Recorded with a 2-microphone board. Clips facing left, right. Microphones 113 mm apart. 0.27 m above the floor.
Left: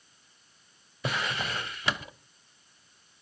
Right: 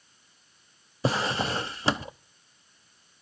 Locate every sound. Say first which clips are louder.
1.0 s a drawer: right 5 dB; 30° right (ahead or behind), 0.5 m